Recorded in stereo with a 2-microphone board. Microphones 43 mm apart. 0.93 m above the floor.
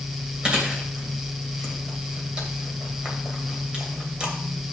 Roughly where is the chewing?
Right.